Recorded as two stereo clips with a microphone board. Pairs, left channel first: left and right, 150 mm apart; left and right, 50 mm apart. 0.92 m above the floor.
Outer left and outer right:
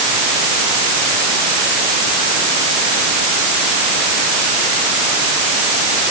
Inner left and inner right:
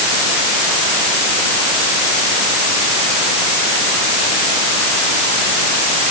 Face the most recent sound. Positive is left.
No sound to turn to.